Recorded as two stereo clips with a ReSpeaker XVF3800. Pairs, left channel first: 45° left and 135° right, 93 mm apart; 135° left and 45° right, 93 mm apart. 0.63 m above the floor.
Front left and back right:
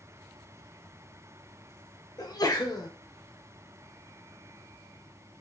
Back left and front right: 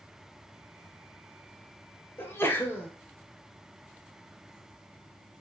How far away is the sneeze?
About 0.8 m.